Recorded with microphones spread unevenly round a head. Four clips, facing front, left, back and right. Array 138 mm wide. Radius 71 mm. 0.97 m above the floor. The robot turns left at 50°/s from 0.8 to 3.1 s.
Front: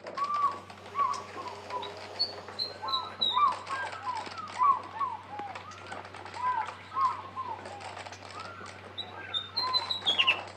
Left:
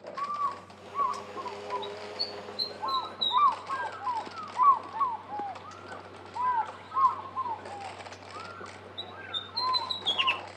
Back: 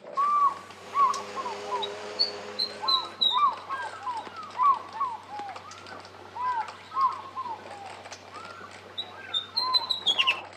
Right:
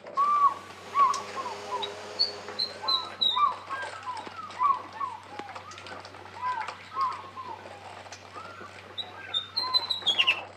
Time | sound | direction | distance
0.2 | a bird | 135° right | 1.2 m